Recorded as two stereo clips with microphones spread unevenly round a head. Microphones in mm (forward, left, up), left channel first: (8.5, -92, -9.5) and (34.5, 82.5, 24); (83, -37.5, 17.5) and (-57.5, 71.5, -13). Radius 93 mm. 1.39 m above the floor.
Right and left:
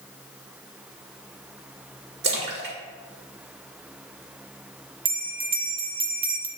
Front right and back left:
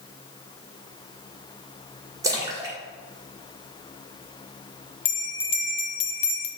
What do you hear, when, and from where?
2.2 s a splash: 65° left, 1.8 m
5.0 s a bell: 20° left, 0.9 m